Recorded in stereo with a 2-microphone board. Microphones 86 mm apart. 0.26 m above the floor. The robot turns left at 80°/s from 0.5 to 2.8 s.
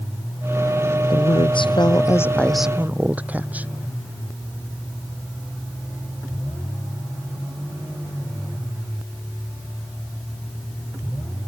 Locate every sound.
1.1 s a woman speaking: 120° left; by 3.7 s 20° right